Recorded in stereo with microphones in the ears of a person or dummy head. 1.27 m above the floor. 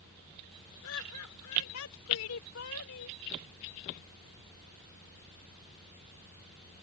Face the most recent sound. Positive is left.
turn(degrees=65)  # may be behind; listen again after turning